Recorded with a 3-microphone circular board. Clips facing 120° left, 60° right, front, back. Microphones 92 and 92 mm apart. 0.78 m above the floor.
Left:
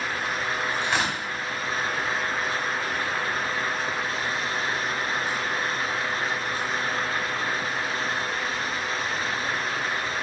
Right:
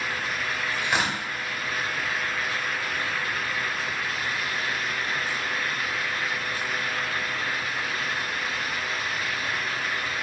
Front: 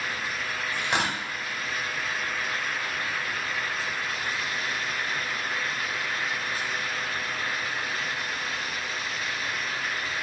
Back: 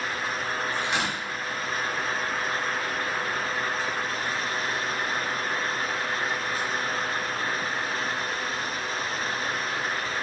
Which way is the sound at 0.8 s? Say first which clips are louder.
Right 2 dB, even; 20° left.